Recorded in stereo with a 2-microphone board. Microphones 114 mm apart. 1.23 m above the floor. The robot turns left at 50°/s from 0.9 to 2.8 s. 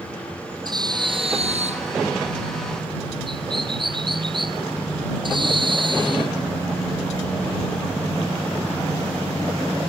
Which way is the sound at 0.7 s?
40° right.